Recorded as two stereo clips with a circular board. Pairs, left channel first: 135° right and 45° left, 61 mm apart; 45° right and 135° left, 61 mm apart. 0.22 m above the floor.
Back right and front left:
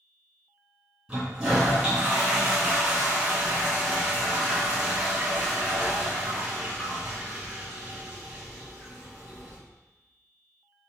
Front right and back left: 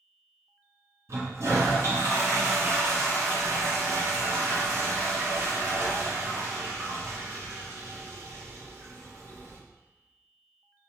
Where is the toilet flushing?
120° left, 2 m.